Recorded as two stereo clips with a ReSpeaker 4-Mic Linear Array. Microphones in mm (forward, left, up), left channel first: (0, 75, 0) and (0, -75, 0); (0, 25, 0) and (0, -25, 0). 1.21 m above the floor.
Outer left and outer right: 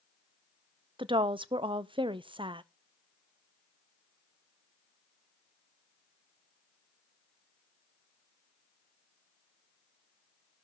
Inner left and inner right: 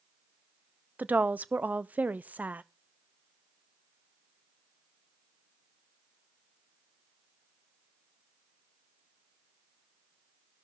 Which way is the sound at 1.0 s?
35° right (ahead or behind).